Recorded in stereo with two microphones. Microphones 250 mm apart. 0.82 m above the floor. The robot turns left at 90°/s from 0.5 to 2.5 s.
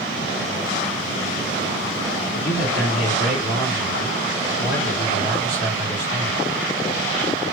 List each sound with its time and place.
2.3 s a man speaking: 65° left (ahead or behind), 1.6 m; by 6.4 s 75° left (ahead or behind), 1.6 m